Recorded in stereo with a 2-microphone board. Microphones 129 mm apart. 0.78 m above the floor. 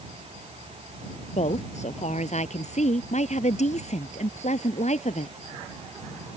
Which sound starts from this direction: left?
A woman speaking, at 1.3 s.